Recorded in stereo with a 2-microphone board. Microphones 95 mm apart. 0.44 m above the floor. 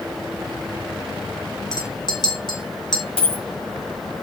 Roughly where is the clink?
Left.